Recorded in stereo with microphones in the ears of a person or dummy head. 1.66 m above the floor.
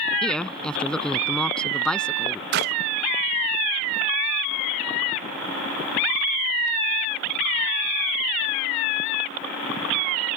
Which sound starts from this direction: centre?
A woman speaking, at 0.2 s.